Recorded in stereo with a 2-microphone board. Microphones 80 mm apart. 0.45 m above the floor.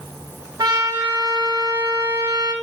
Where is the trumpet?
70° right (ahead or behind), 3 m.